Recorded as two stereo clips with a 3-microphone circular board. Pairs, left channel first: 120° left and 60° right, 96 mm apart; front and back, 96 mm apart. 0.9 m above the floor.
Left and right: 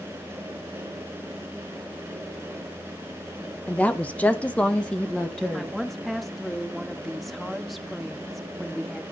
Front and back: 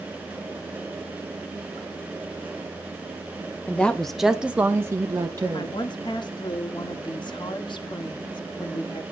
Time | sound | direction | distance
3.7 | a woman speaking | 60° left | 0.9 m
5.5 | a woman speaking | 30° left | 1.1 m